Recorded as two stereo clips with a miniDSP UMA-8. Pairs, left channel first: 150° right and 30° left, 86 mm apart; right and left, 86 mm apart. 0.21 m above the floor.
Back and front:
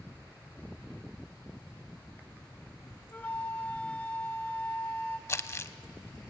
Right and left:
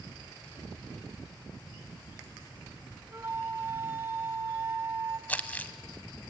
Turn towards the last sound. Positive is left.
turn(degrees=-140)